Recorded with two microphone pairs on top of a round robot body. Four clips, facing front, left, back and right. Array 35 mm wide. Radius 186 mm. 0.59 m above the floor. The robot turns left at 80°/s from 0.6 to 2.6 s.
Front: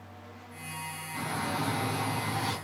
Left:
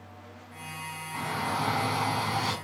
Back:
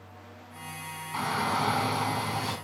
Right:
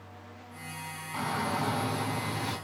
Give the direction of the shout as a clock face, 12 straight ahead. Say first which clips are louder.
Even, back 5 dB; 5 o'clock.